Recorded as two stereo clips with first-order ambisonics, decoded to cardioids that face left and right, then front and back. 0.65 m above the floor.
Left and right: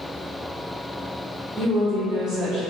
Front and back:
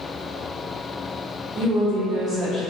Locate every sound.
1.6 s a woman speaking: 170° right, 1.1 m; by 2.6 s 85° right, 1.2 m